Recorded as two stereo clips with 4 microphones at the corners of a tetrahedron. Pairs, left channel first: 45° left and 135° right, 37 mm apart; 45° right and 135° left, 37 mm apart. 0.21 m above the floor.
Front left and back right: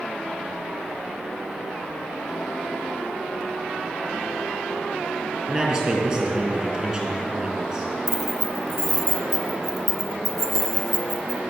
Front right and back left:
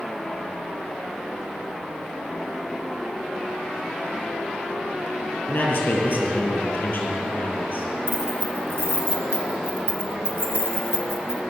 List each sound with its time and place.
5.5 s a man speaking: 75° right, 5 m
8.1 s keys jangling: 130° left, 2 m